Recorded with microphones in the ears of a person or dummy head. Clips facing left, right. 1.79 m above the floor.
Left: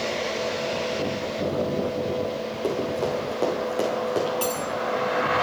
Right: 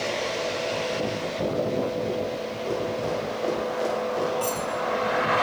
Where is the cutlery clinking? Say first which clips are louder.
Left 1 dB; 25° left (ahead or behind), 1.2 m.